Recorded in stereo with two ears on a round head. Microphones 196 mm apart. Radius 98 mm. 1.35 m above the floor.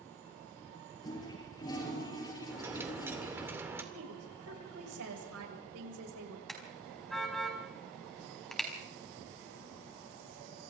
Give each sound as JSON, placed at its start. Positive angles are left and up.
{"t": 1.0, "sound": "a toilet flushing", "side_deg": 20, "distance_m": 6.0}
{"t": 2.5, "sound": "a dropped coin", "side_deg": -10, "distance_m": 2.0}
{"t": 3.9, "sound": "a woman speaking", "side_deg": -80, "distance_m": 7.0}
{"t": 6.5, "sound": "a car horn", "side_deg": 0, "distance_m": 4.5}